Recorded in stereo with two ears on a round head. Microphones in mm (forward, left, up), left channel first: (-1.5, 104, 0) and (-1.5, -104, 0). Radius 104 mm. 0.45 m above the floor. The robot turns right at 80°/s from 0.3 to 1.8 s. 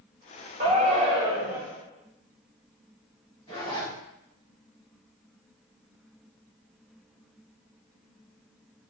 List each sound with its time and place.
0.6 s a shout: 25° right (ahead or behind), 0.9 m; by 1.6 s 10° right (ahead or behind), 0.9 m
3.5 s a zipper: 25° left (ahead or behind), 2.0 m